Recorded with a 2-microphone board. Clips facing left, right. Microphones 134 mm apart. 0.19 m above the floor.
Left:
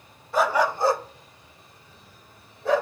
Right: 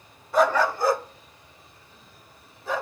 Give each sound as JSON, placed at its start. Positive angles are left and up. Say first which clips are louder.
{"t": 0.3, "sound": "a dog barking", "louder": "right 1 dB", "side_deg": 0, "distance_m": 0.8}